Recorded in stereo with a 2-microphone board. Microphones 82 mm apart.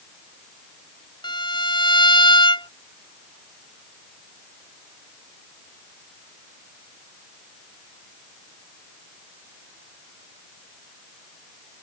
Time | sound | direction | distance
1.2 | a violin | 70° left (ahead or behind) | ?